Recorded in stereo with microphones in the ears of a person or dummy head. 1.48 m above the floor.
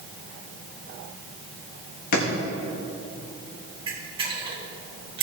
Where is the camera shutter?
25° right (ahead or behind), 1.6 m.